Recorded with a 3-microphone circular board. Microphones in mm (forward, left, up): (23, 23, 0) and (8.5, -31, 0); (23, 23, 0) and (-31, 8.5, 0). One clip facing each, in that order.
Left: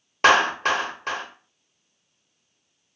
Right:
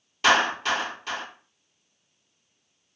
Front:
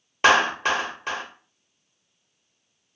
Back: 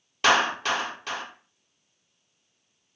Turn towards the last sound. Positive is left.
turn(degrees=65)